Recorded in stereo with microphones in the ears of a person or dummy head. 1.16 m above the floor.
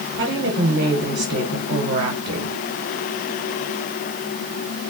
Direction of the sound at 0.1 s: 45° right (ahead or behind).